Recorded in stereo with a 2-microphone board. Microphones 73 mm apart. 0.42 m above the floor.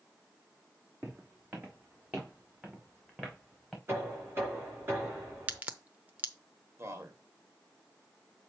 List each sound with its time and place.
1.0 s footsteps: 30° right (ahead or behind), 3 m; by 3.8 s 5° right (ahead or behind), 2.5 m
3.9 s knocking: 35° right (ahead or behind), 5 m
5.5 s a crack: 25° right (ahead or behind), 0.7 m
6.8 s a man speaking: 40° right (ahead or behind), 1.6 m